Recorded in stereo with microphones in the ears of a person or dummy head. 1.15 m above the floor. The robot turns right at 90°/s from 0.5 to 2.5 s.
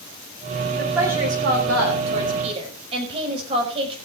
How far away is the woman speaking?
About 5.5 m.